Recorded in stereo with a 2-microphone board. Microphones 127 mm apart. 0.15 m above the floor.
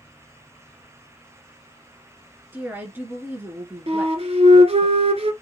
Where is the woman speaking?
15° right (ahead or behind), 2 m.